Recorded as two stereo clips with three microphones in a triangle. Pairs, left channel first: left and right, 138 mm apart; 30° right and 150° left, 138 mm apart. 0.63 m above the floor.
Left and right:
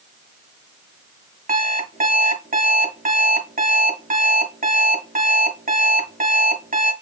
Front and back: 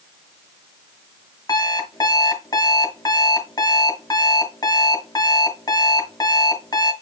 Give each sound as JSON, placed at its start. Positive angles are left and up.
{"t": 1.5, "sound": "an alarm clock", "azimuth_deg": -90, "distance_m": 1.7}